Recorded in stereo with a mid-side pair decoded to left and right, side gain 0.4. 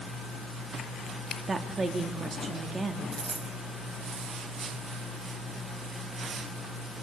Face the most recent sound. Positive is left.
turn(degrees=-45)